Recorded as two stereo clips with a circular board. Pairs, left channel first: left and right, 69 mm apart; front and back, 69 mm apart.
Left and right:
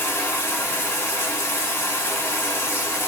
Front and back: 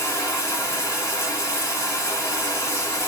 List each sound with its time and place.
0.0 s running water: 35° left, 1.8 m